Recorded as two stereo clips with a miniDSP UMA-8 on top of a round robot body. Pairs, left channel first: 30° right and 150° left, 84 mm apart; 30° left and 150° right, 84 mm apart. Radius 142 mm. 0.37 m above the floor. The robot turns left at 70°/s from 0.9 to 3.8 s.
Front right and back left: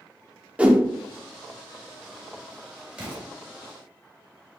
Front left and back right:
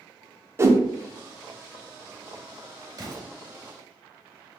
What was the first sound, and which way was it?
A whoosh, 150° right.